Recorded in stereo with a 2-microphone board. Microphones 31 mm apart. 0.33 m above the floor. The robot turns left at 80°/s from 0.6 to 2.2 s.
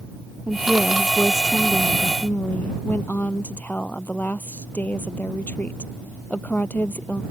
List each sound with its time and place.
0.5 s a woman speaking: 130° right; by 7.2 s 105° left